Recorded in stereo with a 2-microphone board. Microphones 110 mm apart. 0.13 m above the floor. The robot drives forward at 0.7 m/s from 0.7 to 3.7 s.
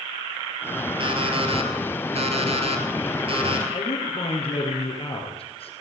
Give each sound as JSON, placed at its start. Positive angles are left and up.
{"t": 1.0, "sound": "an alarm clock", "side_deg": -50, "distance_m": 1.9}
{"t": 3.7, "sound": "a man speaking", "side_deg": 55, "distance_m": 3.0}